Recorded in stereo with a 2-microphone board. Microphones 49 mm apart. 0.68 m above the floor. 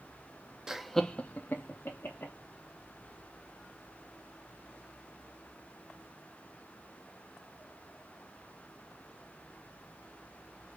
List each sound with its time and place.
0.7 s laughter: 15° right (ahead or behind), 0.5 m; by 2.3 s 65° left (ahead or behind), 1.0 m